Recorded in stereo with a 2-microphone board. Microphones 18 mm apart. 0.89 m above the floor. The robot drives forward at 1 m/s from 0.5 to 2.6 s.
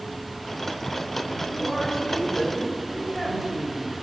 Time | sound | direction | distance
1.5 | a woman speaking | 10° right (ahead or behind) | 2.5 m